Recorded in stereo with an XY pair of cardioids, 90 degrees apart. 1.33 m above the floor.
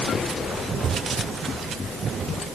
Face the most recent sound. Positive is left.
No sound to turn to.